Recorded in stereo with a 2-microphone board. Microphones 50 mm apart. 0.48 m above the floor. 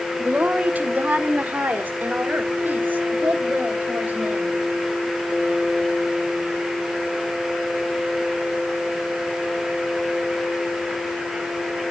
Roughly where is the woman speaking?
Right.